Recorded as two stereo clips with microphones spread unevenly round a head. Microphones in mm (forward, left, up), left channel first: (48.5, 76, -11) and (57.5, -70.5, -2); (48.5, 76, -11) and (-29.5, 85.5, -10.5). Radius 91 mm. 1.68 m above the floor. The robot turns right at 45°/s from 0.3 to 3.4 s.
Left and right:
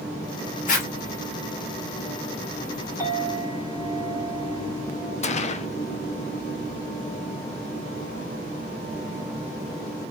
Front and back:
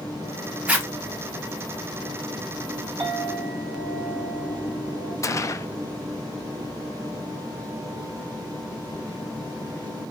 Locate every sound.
0.7 s a zipper: 105° left, 1.5 m; by 0.9 s 115° left, 1.5 m
3.0 s a clink: 170° right, 2.5 m; by 5.1 s 150° right, 2.5 m
5.2 s a gunshot: 50° left, 0.6 m